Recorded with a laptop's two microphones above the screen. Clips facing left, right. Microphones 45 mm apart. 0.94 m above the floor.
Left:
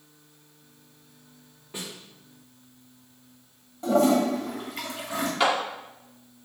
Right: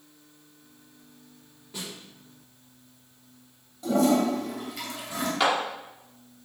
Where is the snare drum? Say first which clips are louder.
Left 1 dB; 25° left (ahead or behind), 2.5 m.